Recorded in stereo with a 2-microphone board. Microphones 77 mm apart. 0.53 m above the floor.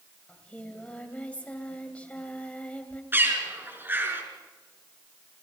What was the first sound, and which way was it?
Singing, 15° left (ahead or behind).